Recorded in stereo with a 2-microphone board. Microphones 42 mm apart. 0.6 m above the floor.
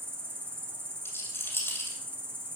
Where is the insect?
55° right (ahead or behind), 1.3 m.